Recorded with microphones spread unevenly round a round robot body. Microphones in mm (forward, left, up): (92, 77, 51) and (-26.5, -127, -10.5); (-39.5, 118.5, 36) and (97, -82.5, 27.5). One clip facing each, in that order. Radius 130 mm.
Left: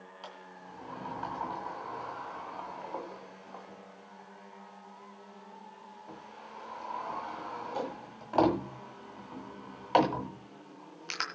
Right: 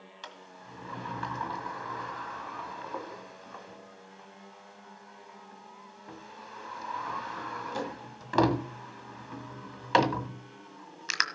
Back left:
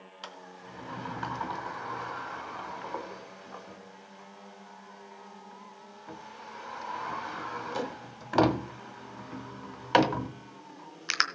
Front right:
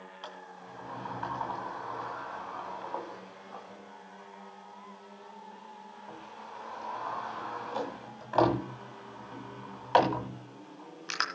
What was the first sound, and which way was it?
A sliding door, straight behind.